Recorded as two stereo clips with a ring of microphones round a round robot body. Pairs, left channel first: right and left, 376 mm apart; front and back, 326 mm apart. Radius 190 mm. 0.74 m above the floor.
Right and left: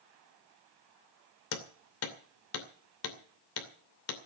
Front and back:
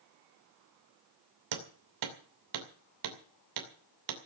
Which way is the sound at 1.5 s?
145° right.